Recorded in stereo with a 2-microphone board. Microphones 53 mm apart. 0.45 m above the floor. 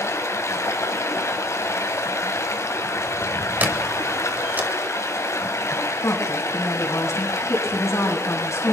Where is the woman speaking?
70° left (ahead or behind), 4 m.